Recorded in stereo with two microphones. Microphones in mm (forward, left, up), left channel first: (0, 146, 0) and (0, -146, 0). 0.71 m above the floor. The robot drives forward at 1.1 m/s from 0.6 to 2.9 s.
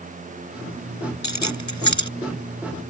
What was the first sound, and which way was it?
Keys jangling, 70° left (ahead or behind).